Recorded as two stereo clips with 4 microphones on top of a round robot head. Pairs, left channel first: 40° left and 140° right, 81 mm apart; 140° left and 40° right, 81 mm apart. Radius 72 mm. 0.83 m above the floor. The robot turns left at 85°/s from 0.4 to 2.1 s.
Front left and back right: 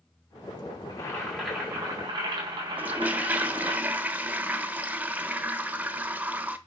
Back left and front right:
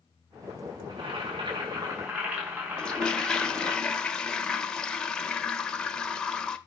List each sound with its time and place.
0.9 s boiling: 5° right, 4 m; by 3.8 s 105° right, 4 m
2.8 s a toilet flushing: 160° right, 0.9 m